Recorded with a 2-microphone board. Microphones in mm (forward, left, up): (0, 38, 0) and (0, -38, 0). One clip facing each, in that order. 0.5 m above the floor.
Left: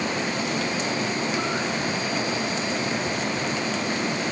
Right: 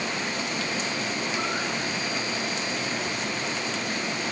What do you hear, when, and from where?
Only background noise.